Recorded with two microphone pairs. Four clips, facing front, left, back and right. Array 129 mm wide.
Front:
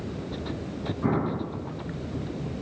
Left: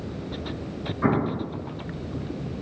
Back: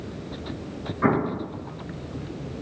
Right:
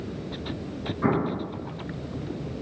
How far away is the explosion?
About 4 m.